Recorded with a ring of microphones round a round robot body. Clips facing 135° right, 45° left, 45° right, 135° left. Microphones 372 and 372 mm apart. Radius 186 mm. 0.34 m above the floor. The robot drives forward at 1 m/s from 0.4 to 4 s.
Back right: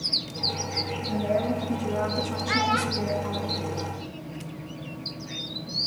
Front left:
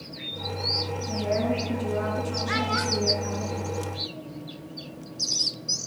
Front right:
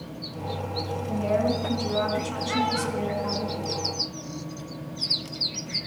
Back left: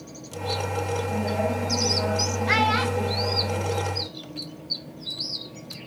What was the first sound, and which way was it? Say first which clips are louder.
A woman speaking: even, front right 2 dB; 45° right.